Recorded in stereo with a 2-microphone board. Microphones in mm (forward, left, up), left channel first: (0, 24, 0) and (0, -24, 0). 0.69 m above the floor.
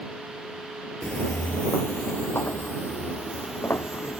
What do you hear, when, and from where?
1.0 s footsteps: 25° left (ahead or behind); by 4.2 s 60° left (ahead or behind)